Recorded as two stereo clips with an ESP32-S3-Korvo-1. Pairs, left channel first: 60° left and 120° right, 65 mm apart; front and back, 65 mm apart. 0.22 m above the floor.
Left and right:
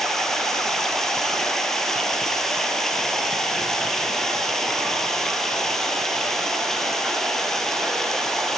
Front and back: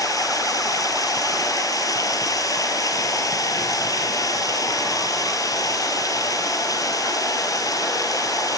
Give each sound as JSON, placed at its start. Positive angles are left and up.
{"t": 0.0, "sound": "running water", "azimuth_deg": -25, "distance_m": 2.0}